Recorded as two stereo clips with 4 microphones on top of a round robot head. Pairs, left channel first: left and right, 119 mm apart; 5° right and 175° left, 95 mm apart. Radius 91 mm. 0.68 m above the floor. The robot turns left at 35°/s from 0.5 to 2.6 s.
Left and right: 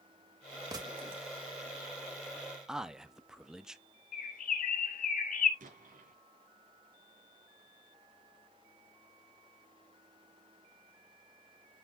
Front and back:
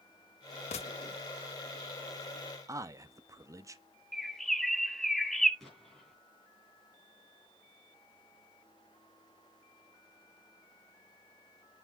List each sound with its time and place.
0.7 s a gunshot: 20° right, 0.6 m; by 1.2 s 40° right, 0.6 m
2.7 s a man speaking: 170° right, 1.2 m
4.1 s a bird: 80° left, 2.5 m
5.6 s an explosion: 95° right, 6 m